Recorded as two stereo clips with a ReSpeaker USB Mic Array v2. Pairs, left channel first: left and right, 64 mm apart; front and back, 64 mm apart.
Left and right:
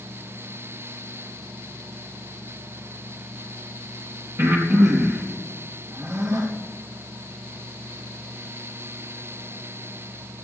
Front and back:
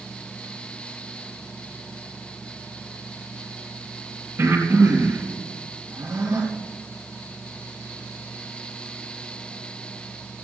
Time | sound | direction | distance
4.4 | breathing | 130° right | 3.5 m